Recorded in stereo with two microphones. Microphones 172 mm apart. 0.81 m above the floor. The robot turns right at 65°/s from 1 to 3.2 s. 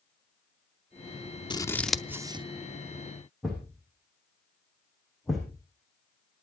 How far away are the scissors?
About 0.6 m.